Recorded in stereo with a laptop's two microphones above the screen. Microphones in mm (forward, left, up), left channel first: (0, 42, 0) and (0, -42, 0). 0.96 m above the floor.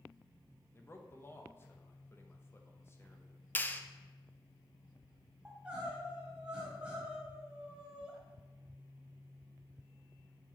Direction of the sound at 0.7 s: 25° left (ahead or behind).